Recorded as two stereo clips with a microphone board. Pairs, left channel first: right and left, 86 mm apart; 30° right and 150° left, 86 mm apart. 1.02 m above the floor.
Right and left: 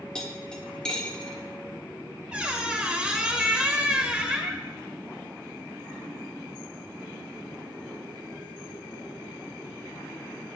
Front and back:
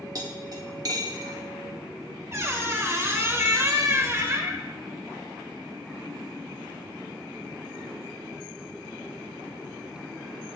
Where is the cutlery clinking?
170° right, 1.0 m.